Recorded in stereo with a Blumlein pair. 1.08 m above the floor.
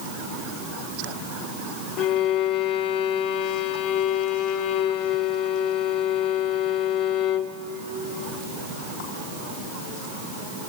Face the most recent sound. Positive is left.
turn(degrees=35)